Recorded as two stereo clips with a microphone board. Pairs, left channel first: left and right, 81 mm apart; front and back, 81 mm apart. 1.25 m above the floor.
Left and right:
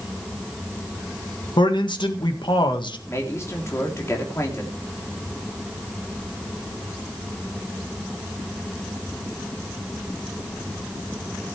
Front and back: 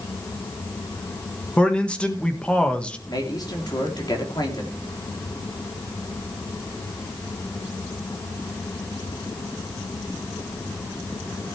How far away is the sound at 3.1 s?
About 3.5 m.